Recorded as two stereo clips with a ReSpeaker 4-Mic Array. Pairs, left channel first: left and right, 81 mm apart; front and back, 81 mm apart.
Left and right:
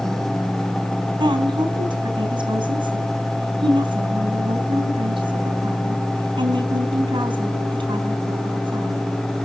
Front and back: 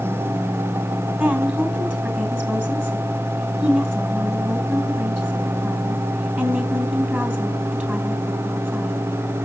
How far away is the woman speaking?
About 4 m.